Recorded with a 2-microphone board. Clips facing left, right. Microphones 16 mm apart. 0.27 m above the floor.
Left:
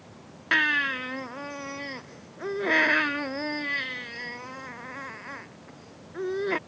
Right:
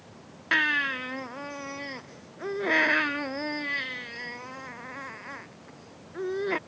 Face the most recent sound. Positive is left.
turn(degrees=5)  # may be behind; listen again after turning